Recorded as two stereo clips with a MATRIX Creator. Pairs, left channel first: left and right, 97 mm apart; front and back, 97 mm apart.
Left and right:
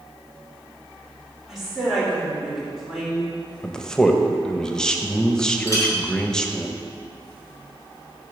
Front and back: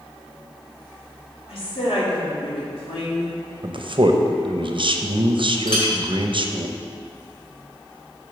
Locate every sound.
1.5 s a woman speaking: 5° right, 2.5 m
3.6 s a man speaking: 170° left, 0.6 m
5.7 s a clink: 35° left, 2.0 m